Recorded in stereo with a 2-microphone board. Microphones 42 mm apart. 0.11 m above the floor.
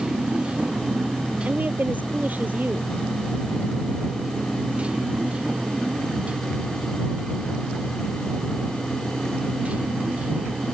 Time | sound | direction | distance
0.0 | a motorcycle | 25° right (ahead or behind) | ?
1.4 | a woman speaking | 45° right (ahead or behind) | ?